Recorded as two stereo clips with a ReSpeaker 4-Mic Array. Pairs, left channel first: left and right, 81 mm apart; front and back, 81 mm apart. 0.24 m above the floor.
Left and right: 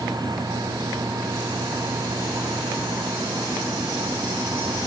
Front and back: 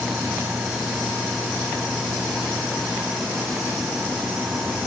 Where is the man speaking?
No man speaking in this recording.